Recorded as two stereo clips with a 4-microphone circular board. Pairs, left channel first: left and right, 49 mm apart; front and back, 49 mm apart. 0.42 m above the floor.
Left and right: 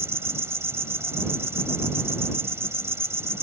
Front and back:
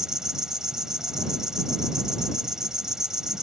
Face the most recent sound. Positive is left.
turn(degrees=-100)